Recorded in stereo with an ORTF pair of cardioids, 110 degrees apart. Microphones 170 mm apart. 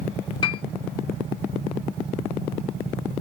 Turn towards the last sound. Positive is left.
turn(degrees=25)